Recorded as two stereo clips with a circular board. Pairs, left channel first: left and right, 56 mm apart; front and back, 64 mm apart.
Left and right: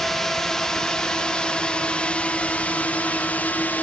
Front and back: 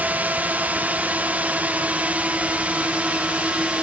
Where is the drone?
165° left; by 3.8 s 125° left.